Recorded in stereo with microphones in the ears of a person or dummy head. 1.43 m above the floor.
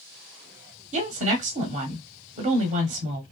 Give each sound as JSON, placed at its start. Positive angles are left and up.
{"t": 0.9, "sound": "a woman speaking", "side_deg": -40, "distance_m": 0.9}